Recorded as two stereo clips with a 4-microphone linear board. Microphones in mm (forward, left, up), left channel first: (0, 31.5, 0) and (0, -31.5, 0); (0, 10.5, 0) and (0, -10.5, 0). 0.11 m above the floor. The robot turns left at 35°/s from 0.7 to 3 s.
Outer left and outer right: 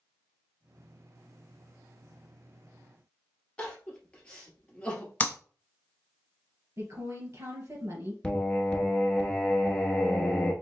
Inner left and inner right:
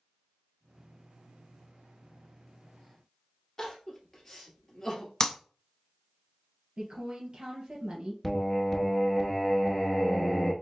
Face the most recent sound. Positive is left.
turn(degrees=15)  # may be behind; listen again after turning